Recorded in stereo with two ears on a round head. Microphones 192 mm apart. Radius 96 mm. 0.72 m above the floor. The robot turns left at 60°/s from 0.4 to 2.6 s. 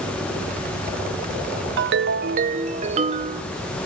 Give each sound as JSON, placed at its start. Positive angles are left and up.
{"t": 1.8, "sound": "a ringtone", "azimuth_deg": -90, "distance_m": 0.5}